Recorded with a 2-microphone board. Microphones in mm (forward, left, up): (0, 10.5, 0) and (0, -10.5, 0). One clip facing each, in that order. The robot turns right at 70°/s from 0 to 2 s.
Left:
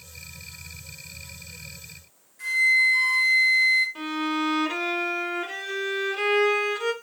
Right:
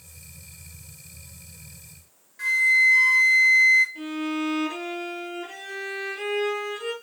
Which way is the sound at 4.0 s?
50° left (ahead or behind).